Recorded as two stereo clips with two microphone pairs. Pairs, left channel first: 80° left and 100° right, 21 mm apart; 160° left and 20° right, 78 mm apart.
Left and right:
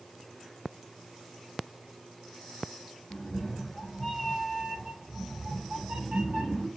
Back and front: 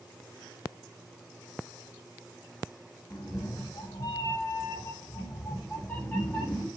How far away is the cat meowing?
About 1.1 m.